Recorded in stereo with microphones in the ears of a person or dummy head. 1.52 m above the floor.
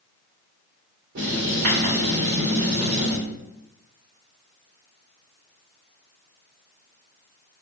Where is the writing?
60° right (ahead or behind), 1.5 m.